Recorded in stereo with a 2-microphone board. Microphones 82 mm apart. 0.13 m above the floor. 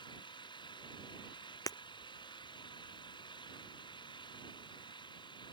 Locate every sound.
0.0 s an engine running: 70° left (ahead or behind)
1.7 s breaking glass: 45° left (ahead or behind)